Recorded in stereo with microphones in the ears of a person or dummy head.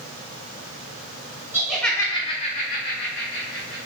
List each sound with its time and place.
1.5 s laughter: 10° right (ahead or behind), 0.8 m; by 3.8 s 75° left (ahead or behind), 1.4 m